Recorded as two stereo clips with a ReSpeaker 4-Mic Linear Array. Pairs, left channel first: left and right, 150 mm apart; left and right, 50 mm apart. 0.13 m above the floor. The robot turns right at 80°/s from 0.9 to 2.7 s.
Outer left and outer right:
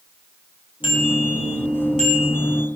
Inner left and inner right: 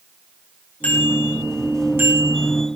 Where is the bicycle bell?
145° left, 7 m; by 2.5 s 90° right, 7 m.